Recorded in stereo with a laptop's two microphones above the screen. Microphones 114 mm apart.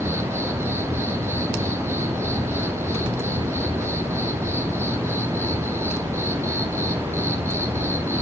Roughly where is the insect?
Right.